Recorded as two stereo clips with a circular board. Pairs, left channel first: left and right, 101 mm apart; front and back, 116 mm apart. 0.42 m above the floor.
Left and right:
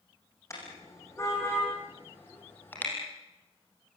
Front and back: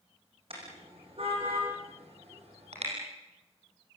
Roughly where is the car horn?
Behind left.